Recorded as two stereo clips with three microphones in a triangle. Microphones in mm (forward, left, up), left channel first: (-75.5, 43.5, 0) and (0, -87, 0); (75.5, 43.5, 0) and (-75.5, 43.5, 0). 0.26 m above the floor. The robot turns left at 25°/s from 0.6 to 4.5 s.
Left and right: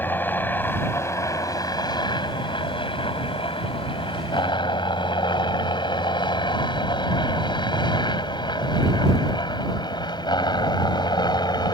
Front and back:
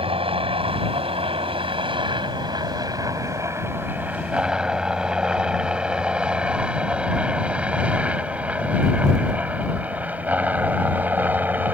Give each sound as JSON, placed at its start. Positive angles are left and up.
{"t": 0.0, "sound": "a helicopter", "azimuth_deg": -170}